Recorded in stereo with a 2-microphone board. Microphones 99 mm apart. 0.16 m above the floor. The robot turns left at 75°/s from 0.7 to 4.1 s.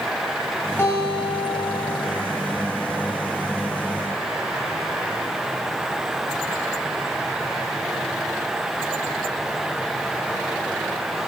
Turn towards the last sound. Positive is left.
turn(degrees=-90)